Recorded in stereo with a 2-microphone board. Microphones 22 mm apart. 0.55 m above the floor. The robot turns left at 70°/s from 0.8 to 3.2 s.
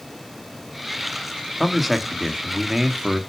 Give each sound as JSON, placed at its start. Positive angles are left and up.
{"t": 1.6, "sound": "a man speaking", "side_deg": 5, "distance_m": 1.2}